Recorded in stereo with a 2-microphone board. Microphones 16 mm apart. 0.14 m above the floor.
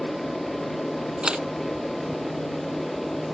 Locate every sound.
0.0 s an aircraft: 20° left (ahead or behind)
1.2 s a camera shutter: 70° right (ahead or behind)